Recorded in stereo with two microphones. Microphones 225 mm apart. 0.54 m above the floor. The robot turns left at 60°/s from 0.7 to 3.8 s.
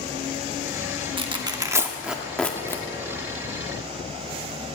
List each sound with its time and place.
1.2 s tearing paper: 20° right (ahead or behind), 1.0 m; by 2.8 s 15° left (ahead or behind), 1.0 m